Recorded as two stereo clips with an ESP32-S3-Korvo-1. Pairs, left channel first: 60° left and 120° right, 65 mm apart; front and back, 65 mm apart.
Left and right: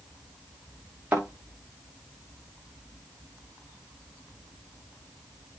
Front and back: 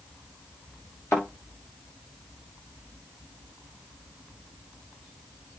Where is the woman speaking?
No woman speaking in this recording.